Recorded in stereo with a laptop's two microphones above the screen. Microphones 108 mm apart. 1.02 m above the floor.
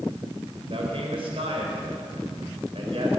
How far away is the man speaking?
About 3.5 m.